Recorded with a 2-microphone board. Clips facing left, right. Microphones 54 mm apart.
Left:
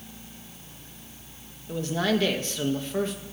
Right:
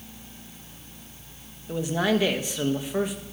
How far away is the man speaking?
About 1.8 m.